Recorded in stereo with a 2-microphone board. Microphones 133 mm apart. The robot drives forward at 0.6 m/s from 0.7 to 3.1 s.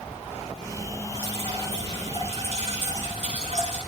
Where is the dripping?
50° right (ahead or behind), 7.5 m; by 3.8 s 60° right (ahead or behind), 6.5 m.